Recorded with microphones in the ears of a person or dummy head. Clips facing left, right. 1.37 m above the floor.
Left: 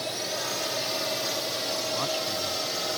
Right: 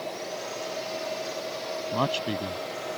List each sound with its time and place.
0.0 s a drone: 70° left (ahead or behind); by 3.0 s 50° left (ahead or behind)
1.9 s a man speaking: 65° right (ahead or behind)